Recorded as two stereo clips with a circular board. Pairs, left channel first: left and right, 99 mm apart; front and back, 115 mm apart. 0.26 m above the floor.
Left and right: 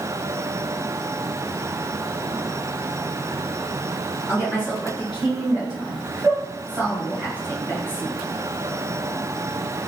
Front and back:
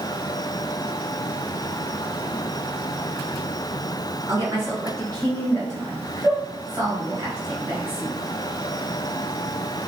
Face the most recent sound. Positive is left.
turn(degrees=-155)